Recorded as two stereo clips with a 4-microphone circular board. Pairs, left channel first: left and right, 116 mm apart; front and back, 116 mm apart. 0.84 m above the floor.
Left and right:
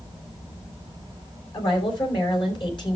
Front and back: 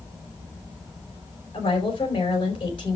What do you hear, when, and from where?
1.5 s a woman speaking: 45° left, 4.5 m